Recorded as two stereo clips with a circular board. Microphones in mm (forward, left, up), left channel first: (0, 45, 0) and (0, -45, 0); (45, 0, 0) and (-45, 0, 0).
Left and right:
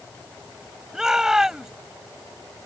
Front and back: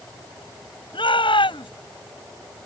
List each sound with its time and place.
0.9 s a shout: 5° right